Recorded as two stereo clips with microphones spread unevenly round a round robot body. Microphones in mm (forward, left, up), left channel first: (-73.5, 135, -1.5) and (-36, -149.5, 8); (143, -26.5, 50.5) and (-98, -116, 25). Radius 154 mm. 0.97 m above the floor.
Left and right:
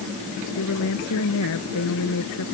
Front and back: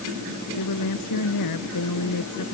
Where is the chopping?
No chopping in this recording.